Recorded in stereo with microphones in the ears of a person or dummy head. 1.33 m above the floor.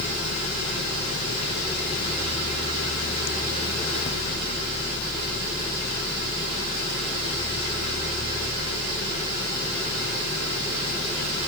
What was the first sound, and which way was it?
Only background noise.